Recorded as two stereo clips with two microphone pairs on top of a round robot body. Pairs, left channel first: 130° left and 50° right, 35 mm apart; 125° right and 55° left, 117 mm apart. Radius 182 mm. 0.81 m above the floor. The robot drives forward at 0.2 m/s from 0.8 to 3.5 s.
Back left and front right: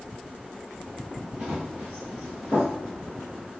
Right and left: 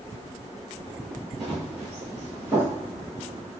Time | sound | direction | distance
1.4 | running footsteps | 5° right | 1.0 m